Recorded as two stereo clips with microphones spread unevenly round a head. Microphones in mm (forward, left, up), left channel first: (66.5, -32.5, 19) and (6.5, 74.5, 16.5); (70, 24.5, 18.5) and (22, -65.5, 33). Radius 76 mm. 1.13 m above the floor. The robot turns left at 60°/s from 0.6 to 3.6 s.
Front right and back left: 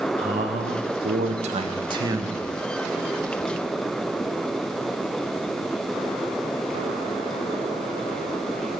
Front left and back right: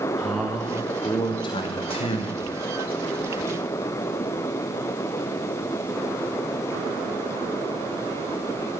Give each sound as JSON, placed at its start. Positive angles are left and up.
{"t": 0.2, "sound": "a man speaking", "azimuth_deg": 150, "distance_m": 1.3}